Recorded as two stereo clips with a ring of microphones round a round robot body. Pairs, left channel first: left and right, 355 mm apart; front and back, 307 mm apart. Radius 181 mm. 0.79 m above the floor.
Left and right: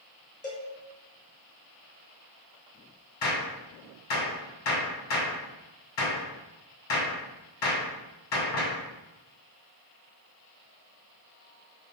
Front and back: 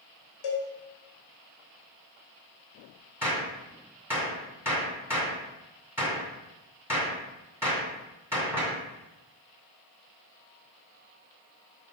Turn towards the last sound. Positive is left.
turn(degrees=95)